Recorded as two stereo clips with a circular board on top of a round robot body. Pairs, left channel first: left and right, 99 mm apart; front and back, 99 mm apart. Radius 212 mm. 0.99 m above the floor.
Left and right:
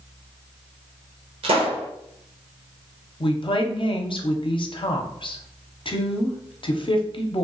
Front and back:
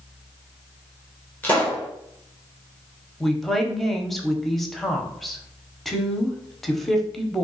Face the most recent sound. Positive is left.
turn(degrees=90)